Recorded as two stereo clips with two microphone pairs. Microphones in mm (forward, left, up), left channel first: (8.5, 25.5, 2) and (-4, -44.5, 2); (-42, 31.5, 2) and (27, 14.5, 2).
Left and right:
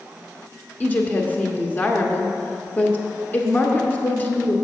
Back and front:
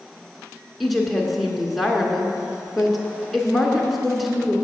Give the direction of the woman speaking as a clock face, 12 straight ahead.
9 o'clock.